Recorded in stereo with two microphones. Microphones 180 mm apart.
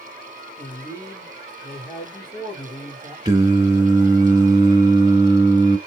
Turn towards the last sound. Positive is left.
turn(degrees=-25)  # may be behind; listen again after turning